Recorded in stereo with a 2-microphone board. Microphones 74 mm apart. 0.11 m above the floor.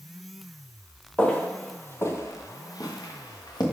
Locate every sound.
1.2 s footsteps: 15° left (ahead or behind), 1.7 m; by 3.6 s 90° left, 1.8 m